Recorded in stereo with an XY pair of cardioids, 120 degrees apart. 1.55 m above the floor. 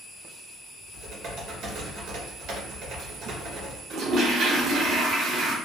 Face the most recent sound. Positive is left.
turn(degrees=-70)